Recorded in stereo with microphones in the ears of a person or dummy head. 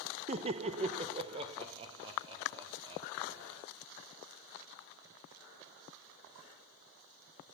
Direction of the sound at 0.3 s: 35° right (ahead or behind).